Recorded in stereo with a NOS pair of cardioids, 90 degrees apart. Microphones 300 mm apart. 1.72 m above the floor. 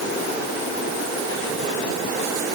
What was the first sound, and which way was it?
Only background noise.